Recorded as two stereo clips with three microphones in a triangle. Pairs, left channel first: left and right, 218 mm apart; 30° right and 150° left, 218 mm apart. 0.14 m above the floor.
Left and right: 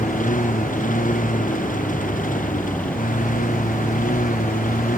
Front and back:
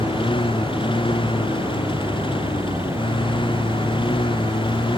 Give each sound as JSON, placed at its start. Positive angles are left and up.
{"t": 0.0, "sound": "a lawn mower", "azimuth_deg": 35}